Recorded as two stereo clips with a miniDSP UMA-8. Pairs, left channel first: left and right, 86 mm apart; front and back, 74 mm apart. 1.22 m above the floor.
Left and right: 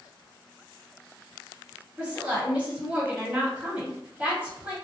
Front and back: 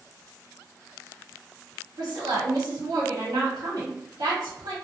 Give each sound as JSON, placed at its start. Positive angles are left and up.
{"t": 2.0, "sound": "a woman speaking", "azimuth_deg": -160, "distance_m": 0.9}